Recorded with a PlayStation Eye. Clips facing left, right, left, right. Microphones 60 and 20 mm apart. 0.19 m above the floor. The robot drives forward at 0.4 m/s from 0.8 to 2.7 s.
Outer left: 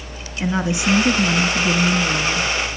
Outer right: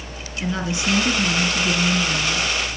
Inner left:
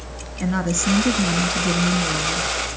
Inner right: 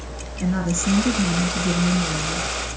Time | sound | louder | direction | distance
0.4 | a woman speaking | outer left 4 dB, inner left 1 dB | 20° left (ahead or behind) | 1.9 m